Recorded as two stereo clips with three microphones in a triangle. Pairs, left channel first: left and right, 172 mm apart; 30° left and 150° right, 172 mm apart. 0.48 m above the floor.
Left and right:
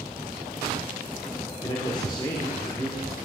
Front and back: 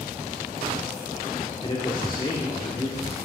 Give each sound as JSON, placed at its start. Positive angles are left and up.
{"t": 1.6, "sound": "a man speaking", "azimuth_deg": 55, "distance_m": 1.1}